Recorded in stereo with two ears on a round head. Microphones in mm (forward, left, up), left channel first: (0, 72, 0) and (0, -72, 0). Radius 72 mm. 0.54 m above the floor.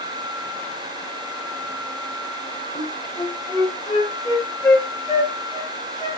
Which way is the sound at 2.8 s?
25° left (ahead or behind).